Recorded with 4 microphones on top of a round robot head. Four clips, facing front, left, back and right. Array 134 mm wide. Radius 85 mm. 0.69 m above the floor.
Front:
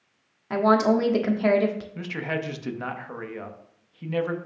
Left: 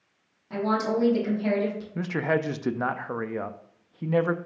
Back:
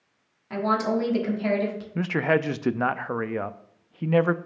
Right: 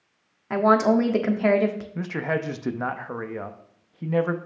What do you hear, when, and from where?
0.5 s a woman speaking: 60° right, 1.3 m
1.9 s a man speaking: 170° left, 0.5 m